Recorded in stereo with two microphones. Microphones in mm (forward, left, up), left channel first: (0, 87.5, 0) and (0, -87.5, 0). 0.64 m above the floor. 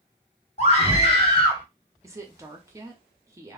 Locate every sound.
0.6 s a scream: 40° left (ahead or behind), 1.6 m; by 1.6 s 25° left (ahead or behind), 1.7 m
2.0 s a woman speaking: 15° right (ahead or behind), 0.7 m